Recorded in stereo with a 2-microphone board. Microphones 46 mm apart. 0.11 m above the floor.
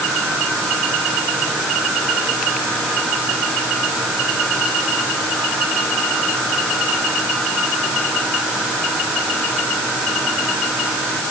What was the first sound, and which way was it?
Only background noise.